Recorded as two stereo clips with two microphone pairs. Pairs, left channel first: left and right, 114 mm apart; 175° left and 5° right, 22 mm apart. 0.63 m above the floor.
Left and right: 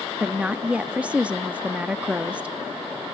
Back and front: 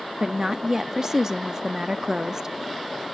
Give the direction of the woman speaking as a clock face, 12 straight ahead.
1 o'clock.